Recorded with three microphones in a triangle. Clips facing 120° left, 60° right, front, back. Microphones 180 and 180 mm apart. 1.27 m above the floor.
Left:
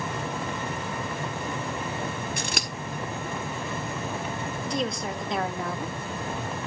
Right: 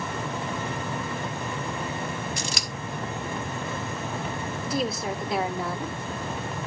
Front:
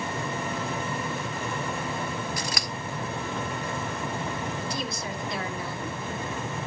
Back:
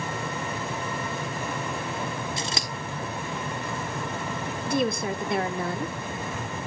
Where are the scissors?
120° left, 1.3 m.